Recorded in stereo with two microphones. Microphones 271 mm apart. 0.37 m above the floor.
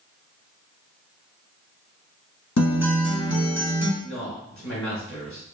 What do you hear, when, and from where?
2.6 s a guitar: 70° left (ahead or behind), 1.0 m
4.0 s a man speaking: 50° right (ahead or behind), 1.7 m